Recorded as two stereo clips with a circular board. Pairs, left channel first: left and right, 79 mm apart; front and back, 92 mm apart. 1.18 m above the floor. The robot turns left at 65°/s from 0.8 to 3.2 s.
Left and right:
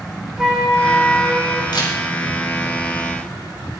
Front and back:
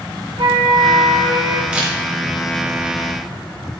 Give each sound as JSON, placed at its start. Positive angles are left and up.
{"t": 0.4, "sound": "a flute", "azimuth_deg": -175, "distance_m": 4.0}
{"t": 1.7, "sound": "a camera shutter", "azimuth_deg": 105, "distance_m": 3.5}